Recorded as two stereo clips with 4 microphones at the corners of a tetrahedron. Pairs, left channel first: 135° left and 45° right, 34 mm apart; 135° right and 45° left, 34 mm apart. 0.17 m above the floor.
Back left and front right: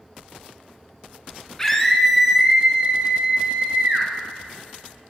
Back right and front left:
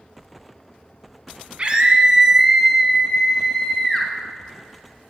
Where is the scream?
65° left, 1.4 m; by 4.1 s 70° right, 1.9 m.